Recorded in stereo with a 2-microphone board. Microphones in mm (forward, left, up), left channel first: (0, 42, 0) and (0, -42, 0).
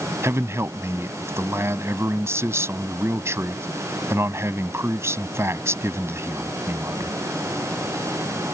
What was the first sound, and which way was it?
A man speaking, 35° right (ahead or behind).